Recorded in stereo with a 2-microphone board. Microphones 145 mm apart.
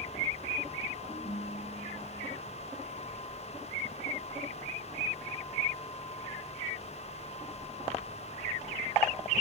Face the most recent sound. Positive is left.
turn(degrees=45)  # may be behind; listen again after turning